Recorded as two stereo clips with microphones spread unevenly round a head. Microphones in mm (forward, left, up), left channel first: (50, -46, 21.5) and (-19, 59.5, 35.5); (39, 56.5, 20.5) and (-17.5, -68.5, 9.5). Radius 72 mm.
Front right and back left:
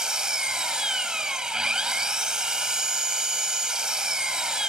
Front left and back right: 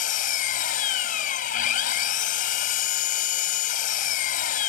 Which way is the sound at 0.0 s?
40° left.